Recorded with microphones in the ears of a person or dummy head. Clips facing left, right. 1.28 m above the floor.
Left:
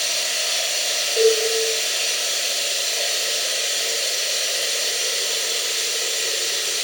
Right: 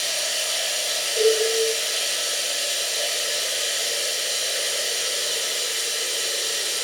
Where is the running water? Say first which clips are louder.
Even; 25° left (ahead or behind), 1.1 m.